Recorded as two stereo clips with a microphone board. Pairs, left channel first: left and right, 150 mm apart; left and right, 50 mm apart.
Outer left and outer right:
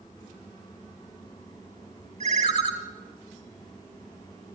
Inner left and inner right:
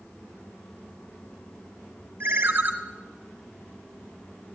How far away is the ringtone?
About 1.4 m.